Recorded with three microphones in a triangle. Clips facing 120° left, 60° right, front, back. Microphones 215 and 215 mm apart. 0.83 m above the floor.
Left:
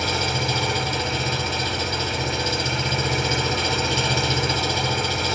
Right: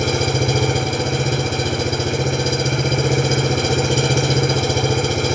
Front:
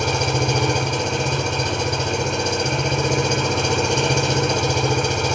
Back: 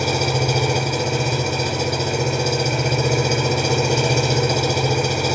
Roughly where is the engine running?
Right.